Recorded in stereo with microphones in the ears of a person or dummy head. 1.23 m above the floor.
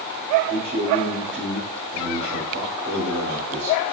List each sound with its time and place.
0.5 s a man speaking: 65° right (ahead or behind), 3.5 m